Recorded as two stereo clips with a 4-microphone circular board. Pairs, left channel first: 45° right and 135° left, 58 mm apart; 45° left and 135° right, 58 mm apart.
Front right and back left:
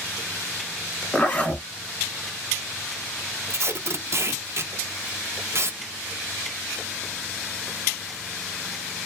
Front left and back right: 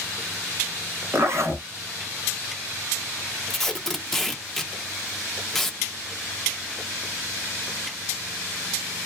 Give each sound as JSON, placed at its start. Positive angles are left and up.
{"t": 1.1, "sound": "a zipper", "azimuth_deg": -110, "distance_m": 1.4}
{"t": 3.5, "sound": "tape being pulled", "azimuth_deg": 130, "distance_m": 0.5}